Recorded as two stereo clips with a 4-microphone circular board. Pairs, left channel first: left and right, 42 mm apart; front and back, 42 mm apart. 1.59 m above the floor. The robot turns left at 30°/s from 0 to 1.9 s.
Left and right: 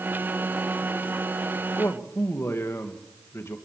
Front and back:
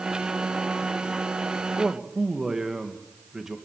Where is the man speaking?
105° left, 2.0 m.